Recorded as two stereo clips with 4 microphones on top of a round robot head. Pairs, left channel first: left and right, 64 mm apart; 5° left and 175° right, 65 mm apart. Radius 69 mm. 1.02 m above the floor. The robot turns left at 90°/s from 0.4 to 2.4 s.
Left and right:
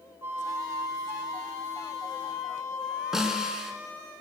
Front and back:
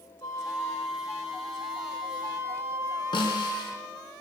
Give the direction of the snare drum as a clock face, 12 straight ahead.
12 o'clock.